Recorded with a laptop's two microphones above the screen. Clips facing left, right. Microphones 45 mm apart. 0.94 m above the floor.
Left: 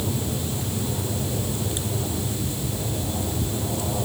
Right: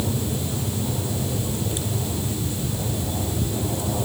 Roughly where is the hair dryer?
I don't hear a hair dryer.